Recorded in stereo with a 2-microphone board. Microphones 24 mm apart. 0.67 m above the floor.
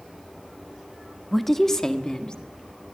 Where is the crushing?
No crushing in this recording.